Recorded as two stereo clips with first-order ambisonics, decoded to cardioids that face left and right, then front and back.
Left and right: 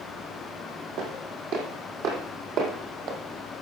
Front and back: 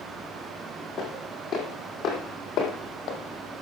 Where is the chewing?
I don't hear chewing.